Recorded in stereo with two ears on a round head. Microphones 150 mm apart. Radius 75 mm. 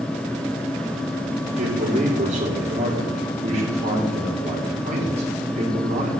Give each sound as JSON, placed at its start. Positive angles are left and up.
{"t": 1.6, "sound": "a man speaking", "side_deg": -45, "distance_m": 5.0}